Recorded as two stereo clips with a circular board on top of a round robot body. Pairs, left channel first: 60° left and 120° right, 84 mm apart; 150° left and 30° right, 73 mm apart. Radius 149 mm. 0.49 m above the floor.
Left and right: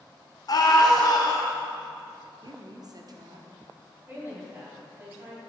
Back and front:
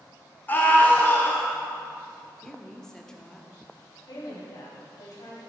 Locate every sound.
0.5 s a scream: 90° left, 1.9 m
2.4 s a woman speaking: 130° right, 1.3 m
4.1 s a woman speaking: straight behind, 3.5 m